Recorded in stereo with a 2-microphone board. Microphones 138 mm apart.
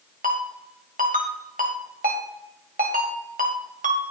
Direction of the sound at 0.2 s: 80° right.